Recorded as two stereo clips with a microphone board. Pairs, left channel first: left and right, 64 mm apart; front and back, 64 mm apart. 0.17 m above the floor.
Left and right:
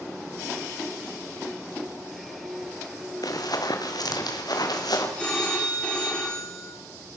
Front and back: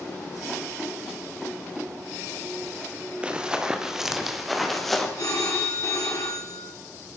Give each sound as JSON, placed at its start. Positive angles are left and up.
{"t": 3.2, "sound": "running footsteps", "azimuth_deg": 105, "distance_m": 3.5}
{"t": 5.2, "sound": "a phone ringing", "azimuth_deg": 20, "distance_m": 7.0}